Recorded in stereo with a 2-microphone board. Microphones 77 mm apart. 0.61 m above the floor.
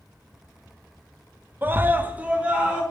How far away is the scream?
About 0.6 m.